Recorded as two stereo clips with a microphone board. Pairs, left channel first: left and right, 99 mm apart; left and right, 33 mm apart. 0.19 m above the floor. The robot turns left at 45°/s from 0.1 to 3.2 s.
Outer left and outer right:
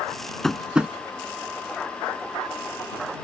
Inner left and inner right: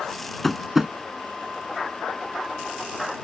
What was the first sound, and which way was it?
Tapping, 5° left (ahead or behind).